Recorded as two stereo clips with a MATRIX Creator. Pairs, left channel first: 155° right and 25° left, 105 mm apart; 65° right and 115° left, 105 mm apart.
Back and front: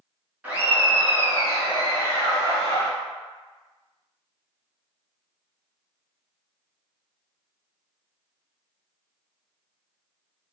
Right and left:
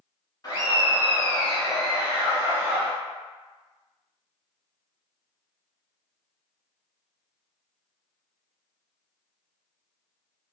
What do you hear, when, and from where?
0.4 s laughter: 45° right, 1.2 m; by 2.9 s 70° left, 1.4 m